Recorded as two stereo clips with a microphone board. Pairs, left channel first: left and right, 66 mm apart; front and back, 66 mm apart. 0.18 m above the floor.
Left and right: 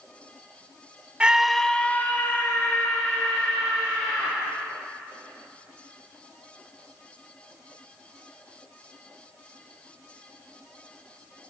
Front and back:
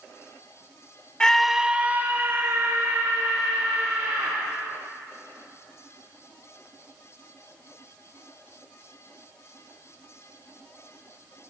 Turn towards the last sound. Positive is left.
turn(degrees=135)